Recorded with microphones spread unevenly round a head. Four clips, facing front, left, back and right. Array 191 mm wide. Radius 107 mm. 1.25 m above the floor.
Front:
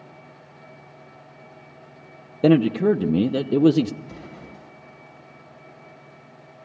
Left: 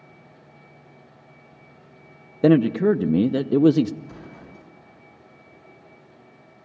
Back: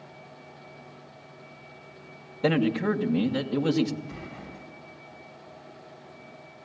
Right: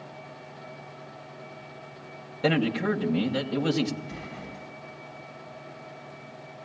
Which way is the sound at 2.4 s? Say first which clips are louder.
Left 9 dB, front 7 dB; 60° left.